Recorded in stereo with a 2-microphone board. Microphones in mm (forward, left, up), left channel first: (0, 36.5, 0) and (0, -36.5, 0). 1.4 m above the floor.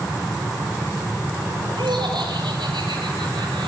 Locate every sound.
1.8 s laughter: 85° right, 7.5 m